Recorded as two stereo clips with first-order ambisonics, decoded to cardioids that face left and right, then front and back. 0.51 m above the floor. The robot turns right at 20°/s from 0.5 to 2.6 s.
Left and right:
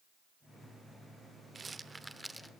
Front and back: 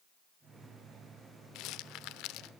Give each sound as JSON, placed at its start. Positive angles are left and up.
{"t": 1.6, "sound": "a rattle", "azimuth_deg": -20, "distance_m": 0.9}